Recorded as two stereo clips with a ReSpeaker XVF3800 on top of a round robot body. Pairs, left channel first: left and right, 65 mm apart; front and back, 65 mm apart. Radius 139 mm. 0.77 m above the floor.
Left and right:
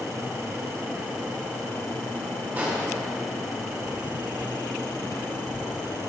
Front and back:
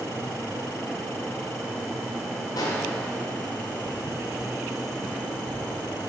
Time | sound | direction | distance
2.6 | an explosion | 25° right | 1.1 m